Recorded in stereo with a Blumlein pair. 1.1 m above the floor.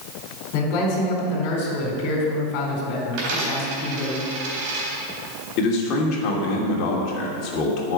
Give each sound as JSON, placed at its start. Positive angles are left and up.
{"t": 0.5, "sound": "a man speaking", "azimuth_deg": 40, "distance_m": 4.0}
{"t": 3.1, "sound": "a dropped coin", "azimuth_deg": -45, "distance_m": 3.5}
{"t": 5.6, "sound": "a man speaking", "azimuth_deg": 35, "distance_m": 3.0}